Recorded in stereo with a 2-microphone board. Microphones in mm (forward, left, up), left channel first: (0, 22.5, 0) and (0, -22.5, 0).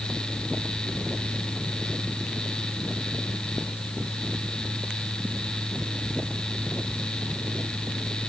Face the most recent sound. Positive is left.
No sound to turn to.